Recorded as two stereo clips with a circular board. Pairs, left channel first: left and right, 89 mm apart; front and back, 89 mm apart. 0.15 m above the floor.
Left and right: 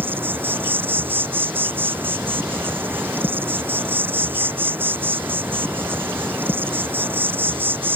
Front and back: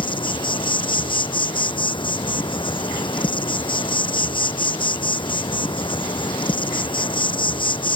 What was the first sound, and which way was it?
An insect, 25° right.